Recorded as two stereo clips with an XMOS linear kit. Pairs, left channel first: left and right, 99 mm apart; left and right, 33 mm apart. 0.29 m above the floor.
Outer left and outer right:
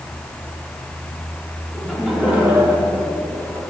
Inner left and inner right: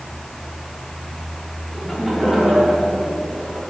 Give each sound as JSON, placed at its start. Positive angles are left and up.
{"t": 1.7, "sound": "laughter", "side_deg": 0, "distance_m": 3.5}